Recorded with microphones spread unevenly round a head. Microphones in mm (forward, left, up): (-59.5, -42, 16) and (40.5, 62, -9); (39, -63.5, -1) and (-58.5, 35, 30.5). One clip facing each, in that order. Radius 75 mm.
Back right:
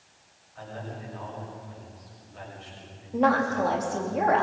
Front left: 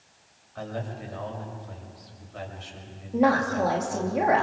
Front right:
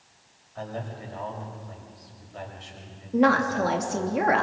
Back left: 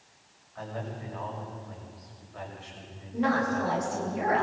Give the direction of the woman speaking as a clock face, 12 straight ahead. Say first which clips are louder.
Front left 1 dB, front right 5 dB; 1 o'clock.